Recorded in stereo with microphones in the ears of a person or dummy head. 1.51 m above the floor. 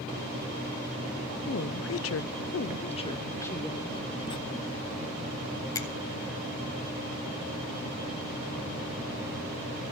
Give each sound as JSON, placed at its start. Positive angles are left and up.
{"t": 1.5, "sound": "a woman speaking", "side_deg": 60, "distance_m": 1.0}
{"t": 4.3, "sound": "writing", "side_deg": 25, "distance_m": 0.8}
{"t": 5.8, "sound": "a finger snap", "side_deg": 15, "distance_m": 1.2}